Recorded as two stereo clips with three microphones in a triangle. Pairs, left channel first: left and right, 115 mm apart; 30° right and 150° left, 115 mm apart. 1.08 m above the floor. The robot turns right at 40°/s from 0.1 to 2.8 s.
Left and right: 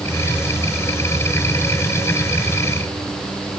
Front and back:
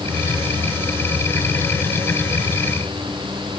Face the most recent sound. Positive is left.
No sound to turn to.